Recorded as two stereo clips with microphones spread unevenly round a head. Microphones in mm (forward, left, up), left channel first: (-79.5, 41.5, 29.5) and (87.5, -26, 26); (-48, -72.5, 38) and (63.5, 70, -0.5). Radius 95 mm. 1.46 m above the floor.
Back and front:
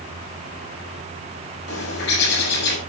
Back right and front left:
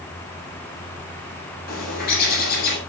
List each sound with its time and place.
1.7 s a bird: 170° right, 7.5 m